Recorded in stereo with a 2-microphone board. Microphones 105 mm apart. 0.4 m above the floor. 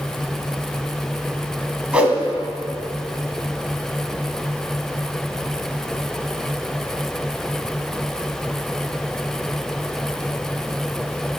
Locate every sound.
1.9 s a whoosh: 10° right (ahead or behind), 1.5 m